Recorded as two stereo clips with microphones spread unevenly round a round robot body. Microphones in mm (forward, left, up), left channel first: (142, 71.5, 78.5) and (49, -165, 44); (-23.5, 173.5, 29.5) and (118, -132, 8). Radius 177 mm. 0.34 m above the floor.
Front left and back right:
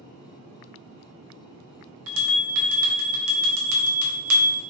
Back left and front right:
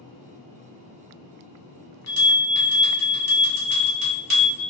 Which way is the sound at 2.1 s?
135° right.